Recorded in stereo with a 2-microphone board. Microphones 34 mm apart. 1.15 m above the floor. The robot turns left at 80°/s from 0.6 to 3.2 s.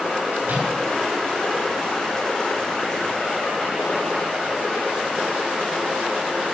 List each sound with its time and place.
0.4 s a microwave: 85° right, 7 m; by 0.7 s 75° right (ahead or behind), 7 m